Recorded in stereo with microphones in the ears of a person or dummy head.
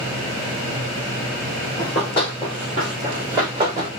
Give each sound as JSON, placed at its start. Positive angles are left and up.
{"t": 1.8, "sound": "running footsteps", "side_deg": 15, "distance_m": 1.6}